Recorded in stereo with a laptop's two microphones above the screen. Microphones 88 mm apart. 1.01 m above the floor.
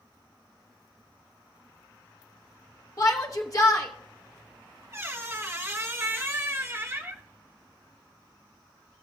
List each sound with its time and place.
3.0 s a shout: 40° left (ahead or behind), 1.2 m
4.9 s a squeak: 30° right (ahead or behind), 0.7 m